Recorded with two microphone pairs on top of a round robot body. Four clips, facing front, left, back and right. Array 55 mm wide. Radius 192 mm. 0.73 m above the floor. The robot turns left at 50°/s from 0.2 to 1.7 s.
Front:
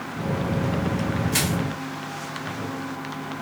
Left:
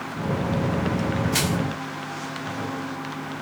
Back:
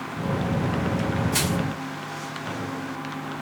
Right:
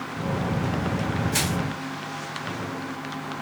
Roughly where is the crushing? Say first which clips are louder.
Left 2 dB, even; ahead.